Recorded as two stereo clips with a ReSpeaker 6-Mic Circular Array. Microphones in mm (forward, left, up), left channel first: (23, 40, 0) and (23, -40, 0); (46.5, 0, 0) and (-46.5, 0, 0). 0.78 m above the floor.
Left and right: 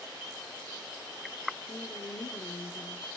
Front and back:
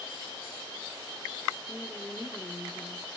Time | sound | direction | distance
1.7 | a woman speaking | 70° left | 2 m